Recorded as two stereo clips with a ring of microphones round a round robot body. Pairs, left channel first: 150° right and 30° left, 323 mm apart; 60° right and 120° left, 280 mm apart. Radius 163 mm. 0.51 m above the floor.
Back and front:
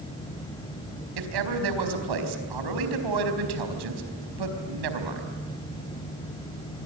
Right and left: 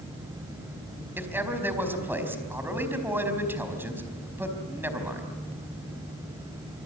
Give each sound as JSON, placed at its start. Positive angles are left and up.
{"t": 1.2, "sound": "a man speaking", "azimuth_deg": 35, "distance_m": 4.5}